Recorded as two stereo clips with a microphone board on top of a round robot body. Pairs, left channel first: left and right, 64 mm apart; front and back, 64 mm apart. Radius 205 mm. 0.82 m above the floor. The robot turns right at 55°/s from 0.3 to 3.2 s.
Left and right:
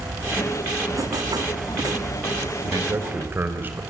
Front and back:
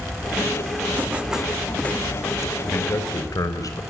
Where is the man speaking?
60° right, 4 m; by 3.8 s 30° right, 4 m.